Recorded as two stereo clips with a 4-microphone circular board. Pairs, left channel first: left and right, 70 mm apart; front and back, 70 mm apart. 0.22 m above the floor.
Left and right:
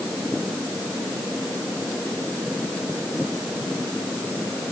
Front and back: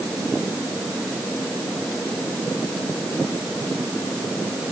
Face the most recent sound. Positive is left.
No sound to turn to.